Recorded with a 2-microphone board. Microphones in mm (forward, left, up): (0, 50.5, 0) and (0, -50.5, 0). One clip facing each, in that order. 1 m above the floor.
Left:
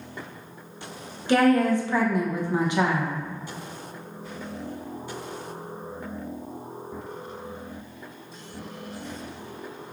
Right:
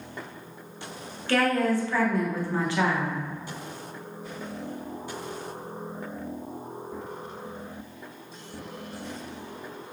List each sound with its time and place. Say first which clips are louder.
1.3 s a woman speaking: left 4 dB; 20° left (ahead or behind), 0.7 m